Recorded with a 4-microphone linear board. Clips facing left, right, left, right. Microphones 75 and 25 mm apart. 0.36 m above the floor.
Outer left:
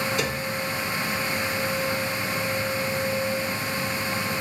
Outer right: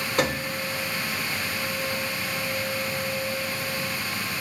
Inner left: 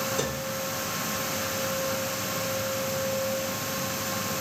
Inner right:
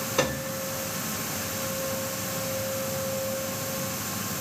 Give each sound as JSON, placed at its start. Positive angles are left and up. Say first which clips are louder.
{"t": 0.2, "sound": "a piano", "louder": "outer right 2 dB, inner right 3 dB", "side_deg": -50, "distance_m": 0.7}